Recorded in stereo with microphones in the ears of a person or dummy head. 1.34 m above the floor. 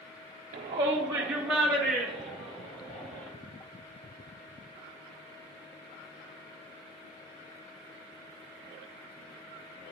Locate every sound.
0.5 s a shout: 35° right (ahead or behind), 0.5 m; by 3.3 s 10° left (ahead or behind), 2 m